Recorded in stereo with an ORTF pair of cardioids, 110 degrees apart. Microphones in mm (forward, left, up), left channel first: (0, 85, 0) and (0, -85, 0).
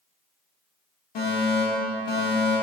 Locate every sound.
1.1 s a fire alarm: 65° left, 2.5 m